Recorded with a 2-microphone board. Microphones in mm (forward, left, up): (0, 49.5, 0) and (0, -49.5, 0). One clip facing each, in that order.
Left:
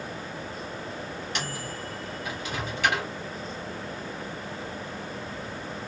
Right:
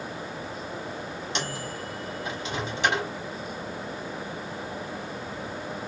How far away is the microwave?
About 0.9 m.